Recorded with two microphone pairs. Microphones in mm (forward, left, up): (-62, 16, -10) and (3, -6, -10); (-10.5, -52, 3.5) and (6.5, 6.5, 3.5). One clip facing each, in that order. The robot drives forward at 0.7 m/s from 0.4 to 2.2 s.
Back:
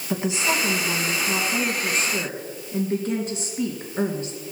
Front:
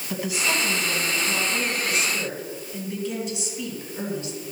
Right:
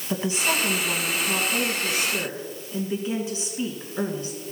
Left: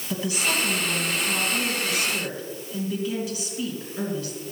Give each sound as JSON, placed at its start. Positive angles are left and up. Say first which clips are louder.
{"t": 0.1, "sound": "a woman speaking", "louder": "back 2 dB, right 1 dB", "azimuth_deg": -150, "distance_m": 1.9}